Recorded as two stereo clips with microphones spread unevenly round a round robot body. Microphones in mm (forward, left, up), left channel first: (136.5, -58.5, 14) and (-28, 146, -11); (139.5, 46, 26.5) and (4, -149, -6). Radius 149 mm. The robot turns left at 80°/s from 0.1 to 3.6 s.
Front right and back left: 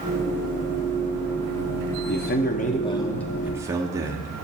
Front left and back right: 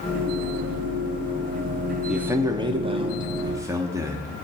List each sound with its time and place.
2.1 s a man speaking: 55° right, 0.9 m; by 4.3 s 175° right, 0.9 m